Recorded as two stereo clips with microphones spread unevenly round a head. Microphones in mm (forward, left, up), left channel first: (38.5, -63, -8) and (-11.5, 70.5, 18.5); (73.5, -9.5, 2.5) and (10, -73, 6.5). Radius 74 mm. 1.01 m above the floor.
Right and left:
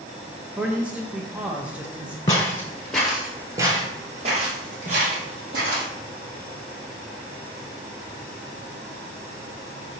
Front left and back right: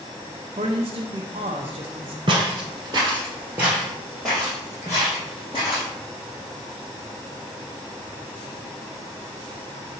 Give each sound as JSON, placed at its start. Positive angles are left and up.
{"t": 0.6, "sound": "a man speaking", "azimuth_deg": -160, "distance_m": 0.5}
{"t": 2.3, "sound": "footsteps", "azimuth_deg": -140, "distance_m": 1.6}